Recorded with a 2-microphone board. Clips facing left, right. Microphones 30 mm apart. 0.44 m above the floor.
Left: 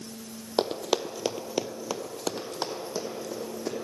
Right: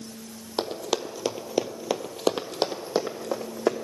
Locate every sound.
0.6 s running footsteps: 15° left (ahead or behind), 0.8 m; by 3.8 s 65° right (ahead or behind), 1.4 m